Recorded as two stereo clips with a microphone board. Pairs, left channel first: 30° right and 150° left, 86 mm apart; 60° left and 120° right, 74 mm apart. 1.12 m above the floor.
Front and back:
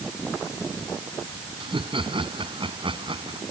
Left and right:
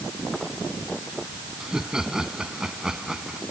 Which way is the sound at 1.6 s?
160° left.